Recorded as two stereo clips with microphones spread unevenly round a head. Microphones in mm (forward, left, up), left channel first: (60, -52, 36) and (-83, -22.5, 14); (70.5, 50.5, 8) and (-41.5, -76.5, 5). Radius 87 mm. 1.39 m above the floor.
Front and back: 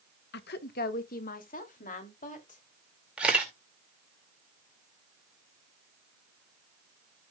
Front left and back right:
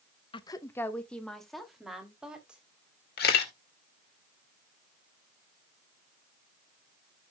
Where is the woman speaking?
15° right, 1.2 m; by 2.6 s 45° right, 4 m.